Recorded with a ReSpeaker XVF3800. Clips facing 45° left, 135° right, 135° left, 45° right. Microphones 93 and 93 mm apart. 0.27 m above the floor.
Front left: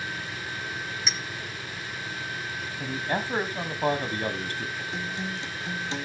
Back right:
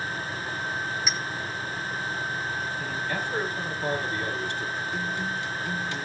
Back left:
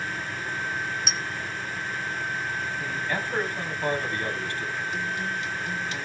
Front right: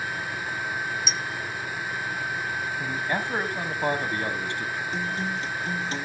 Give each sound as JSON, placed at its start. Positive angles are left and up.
{"t": 1.1, "sound": "a clink", "azimuth_deg": 140, "distance_m": 1.5}
{"t": 2.8, "sound": "a man speaking", "azimuth_deg": 15, "distance_m": 1.6}
{"t": 4.9, "sound": "a guitar", "azimuth_deg": -10, "distance_m": 1.2}